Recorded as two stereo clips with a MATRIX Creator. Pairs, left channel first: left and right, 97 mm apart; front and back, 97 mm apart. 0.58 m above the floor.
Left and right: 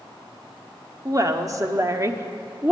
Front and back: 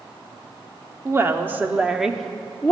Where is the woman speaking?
130° right, 1.1 m; by 2.7 s 50° right, 0.9 m.